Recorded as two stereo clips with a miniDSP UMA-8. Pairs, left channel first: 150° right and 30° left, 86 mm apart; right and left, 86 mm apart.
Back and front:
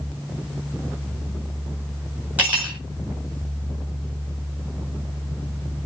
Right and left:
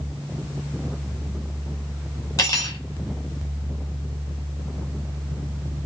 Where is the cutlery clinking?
45° right, 4 m.